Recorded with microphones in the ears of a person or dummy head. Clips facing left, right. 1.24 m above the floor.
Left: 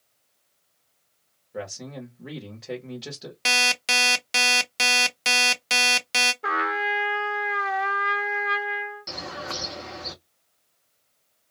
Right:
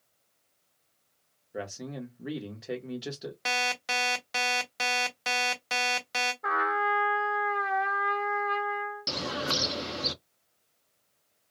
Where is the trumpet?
35° left (ahead or behind), 0.5 m.